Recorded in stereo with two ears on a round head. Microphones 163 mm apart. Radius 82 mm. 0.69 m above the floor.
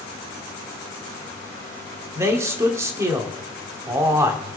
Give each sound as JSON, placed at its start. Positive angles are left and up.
{"t": 2.1, "sound": "a man speaking", "side_deg": -15, "distance_m": 1.8}